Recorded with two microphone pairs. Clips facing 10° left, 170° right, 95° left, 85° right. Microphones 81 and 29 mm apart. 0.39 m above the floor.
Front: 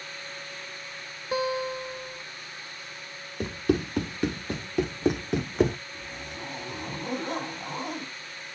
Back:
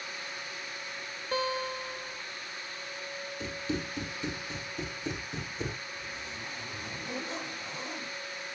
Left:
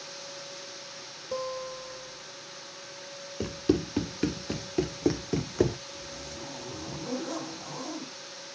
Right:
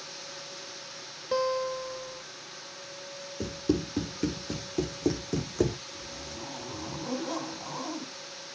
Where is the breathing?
I don't hear breathing.